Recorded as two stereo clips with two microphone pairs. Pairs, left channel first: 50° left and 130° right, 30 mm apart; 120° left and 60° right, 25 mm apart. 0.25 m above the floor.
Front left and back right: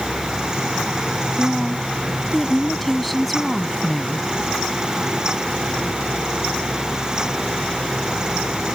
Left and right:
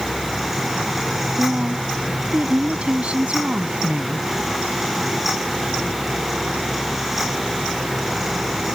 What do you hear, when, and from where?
1.4 s a woman speaking: 40° right